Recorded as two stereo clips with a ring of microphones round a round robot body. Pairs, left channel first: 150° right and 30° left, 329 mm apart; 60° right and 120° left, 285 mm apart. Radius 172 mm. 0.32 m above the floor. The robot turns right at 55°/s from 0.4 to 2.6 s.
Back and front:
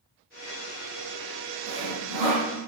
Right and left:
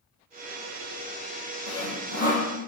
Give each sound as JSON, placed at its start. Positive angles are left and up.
{"t": 1.7, "sound": "sawing", "azimuth_deg": -30, "distance_m": 5.5}